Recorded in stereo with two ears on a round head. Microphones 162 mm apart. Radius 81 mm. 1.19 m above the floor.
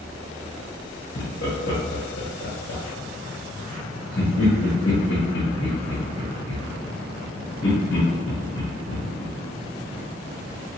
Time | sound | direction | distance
1.1 | laughter | 80° left | 1.1 m